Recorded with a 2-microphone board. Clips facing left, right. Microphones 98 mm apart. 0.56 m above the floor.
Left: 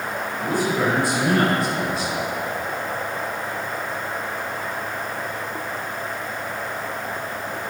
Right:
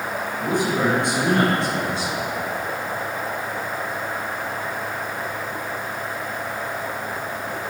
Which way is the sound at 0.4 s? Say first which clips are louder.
Even; 20° right (ahead or behind).